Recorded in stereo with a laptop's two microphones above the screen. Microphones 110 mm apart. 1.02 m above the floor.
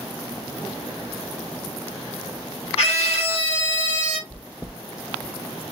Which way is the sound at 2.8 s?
70° left (ahead or behind).